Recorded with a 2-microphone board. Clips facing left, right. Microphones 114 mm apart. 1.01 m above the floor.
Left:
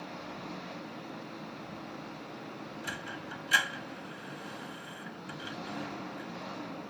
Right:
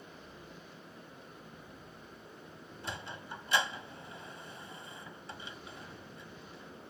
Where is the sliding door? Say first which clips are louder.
Right 2 dB; 25° right (ahead or behind).